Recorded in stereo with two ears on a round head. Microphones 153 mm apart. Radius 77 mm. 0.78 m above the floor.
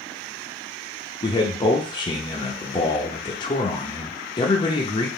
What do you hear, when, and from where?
1.2 s a man speaking: 25° left (ahead or behind), 0.7 m